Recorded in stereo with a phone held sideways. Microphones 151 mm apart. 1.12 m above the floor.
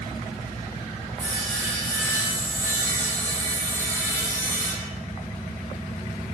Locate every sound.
1.2 s sawing: 15° left (ahead or behind), 1.0 m